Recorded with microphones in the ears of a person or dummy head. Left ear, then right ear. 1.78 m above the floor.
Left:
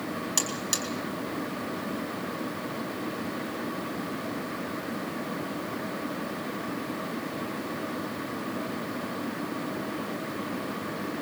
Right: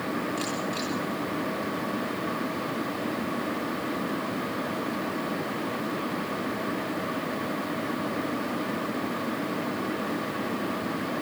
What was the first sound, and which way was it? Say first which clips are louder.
A buzzer: even; 80° left.